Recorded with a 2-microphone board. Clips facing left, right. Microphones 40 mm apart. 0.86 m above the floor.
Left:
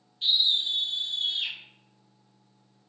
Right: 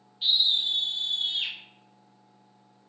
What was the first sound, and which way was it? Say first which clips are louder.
A scream: even; 10° right (ahead or behind).